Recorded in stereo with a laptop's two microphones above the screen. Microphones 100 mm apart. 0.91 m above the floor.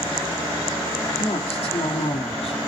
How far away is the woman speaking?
About 2.5 m.